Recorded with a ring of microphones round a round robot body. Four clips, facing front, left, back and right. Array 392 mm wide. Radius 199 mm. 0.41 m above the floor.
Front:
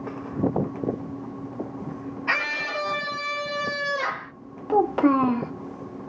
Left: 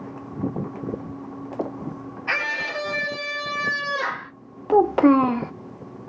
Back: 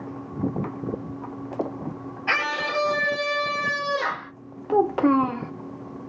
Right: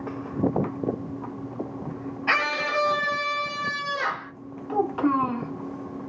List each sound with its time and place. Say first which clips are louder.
2.3 s a scream: right 3 dB, back 3 dB; 135° right, 1.0 m; by 4.3 s 155° left, 1.3 m
4.7 s a child speaking: left 8 dB, even; 90° left, 0.6 m